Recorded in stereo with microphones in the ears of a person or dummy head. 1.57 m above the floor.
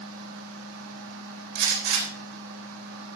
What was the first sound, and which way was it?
A fan, 70° right (ahead or behind).